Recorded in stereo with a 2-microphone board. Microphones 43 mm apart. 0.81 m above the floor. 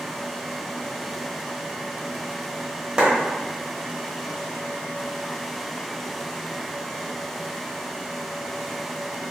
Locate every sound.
3.0 s a clap: 25° right (ahead or behind), 1.1 m